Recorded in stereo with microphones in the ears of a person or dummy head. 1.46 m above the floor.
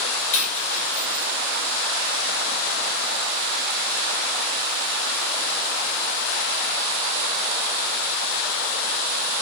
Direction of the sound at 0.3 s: 40° left (ahead or behind).